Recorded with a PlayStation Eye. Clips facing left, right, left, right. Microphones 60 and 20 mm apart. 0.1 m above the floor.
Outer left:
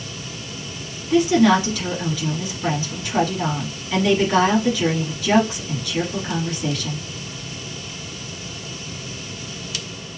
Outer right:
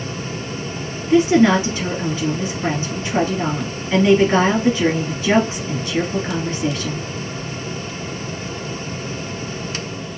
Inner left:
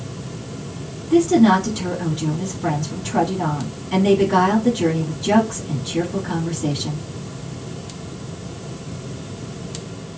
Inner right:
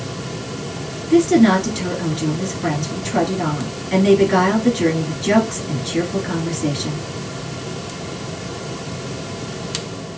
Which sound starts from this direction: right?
A woman speaking, at 1.1 s.